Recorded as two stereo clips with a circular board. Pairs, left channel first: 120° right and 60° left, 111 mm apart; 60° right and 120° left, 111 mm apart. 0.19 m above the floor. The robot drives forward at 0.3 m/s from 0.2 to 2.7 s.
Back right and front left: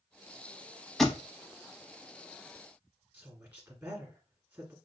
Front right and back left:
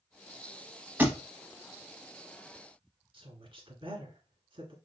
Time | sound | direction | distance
1.0 | a thud | 155° left | 0.6 m
3.1 | a woman speaking | 125° left | 1.5 m